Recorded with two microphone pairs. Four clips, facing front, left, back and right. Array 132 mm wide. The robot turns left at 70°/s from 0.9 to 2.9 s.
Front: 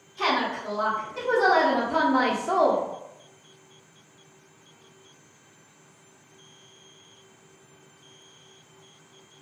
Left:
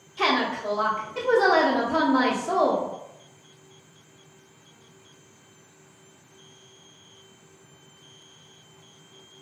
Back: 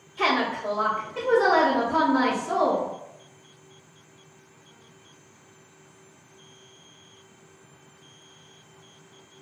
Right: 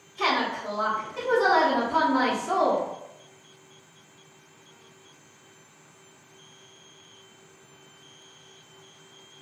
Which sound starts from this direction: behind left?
A woman speaking, at 0.2 s.